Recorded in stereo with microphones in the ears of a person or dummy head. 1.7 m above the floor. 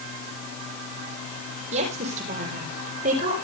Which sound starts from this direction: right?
A woman speaking, at 1.7 s.